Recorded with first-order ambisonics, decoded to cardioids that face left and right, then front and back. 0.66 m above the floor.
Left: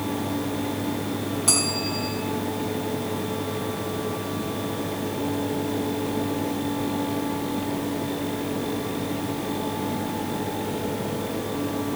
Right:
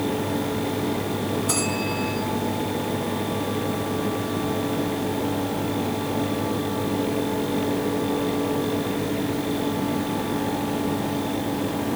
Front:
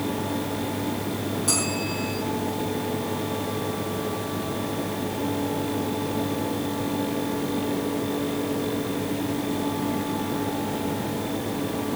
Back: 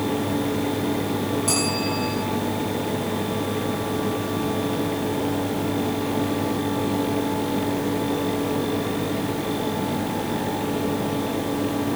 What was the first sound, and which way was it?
A bell, 95° left.